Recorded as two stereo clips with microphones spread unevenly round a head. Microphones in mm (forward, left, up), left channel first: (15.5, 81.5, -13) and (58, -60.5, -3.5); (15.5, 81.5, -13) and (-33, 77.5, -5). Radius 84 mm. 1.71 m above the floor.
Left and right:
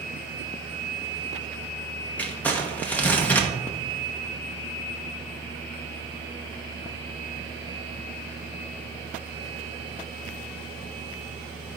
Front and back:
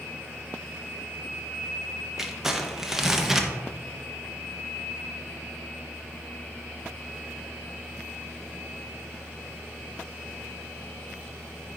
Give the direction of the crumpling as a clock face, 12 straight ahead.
6 o'clock.